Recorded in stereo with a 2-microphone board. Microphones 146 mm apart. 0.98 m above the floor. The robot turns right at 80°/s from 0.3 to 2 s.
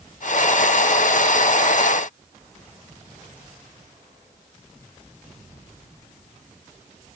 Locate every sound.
Only background noise.